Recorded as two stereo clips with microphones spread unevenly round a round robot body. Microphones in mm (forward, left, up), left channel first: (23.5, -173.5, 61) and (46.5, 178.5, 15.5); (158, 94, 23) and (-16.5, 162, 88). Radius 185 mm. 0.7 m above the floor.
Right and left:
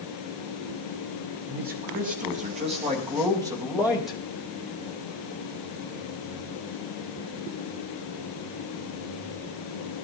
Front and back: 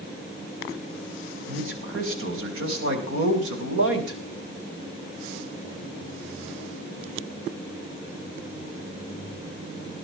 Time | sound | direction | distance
1.5 | a man speaking | 150° left | 5.5 m